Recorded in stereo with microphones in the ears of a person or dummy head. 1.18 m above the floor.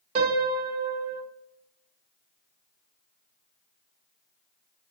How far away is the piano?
About 0.6 m.